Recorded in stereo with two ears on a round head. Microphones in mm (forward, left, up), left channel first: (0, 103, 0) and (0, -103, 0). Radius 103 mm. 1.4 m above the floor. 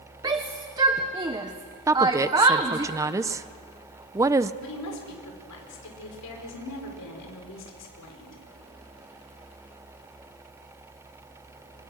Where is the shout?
15° right (ahead or behind), 1.0 m.